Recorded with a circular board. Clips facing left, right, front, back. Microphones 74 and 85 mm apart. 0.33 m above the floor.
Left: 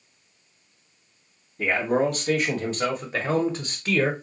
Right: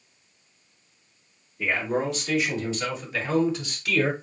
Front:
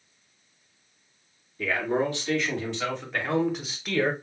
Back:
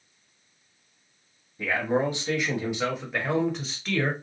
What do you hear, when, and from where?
1.6 s a man speaking: 120° left, 2 m; by 4.1 s 65° left, 1.3 m